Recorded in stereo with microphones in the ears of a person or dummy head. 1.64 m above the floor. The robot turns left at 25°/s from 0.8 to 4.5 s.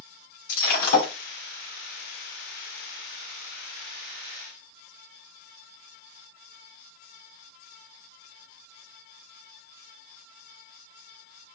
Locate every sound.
0.5 s breaking glass: 50° left (ahead or behind), 4 m; by 1.1 s 40° left (ahead or behind), 4 m